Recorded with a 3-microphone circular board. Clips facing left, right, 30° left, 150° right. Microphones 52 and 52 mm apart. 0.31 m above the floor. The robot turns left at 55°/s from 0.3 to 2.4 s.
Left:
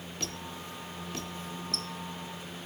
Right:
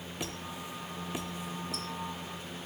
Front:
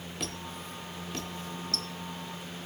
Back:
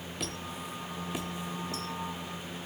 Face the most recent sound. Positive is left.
turn(degrees=180)